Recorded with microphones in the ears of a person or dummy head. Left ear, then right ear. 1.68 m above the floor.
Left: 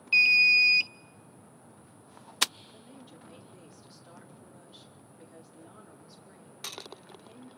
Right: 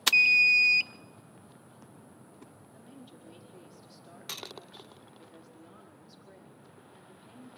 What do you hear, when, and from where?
0.1 s an alarm: 10° left (ahead or behind), 0.8 m
2.7 s a woman speaking: centre (ahead or behind), 4.5 m